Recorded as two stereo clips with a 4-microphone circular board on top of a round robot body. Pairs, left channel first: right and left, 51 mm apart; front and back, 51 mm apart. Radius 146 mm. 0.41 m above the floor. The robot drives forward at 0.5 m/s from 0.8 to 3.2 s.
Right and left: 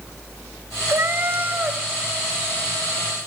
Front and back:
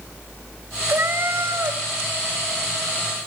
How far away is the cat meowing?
About 0.8 m.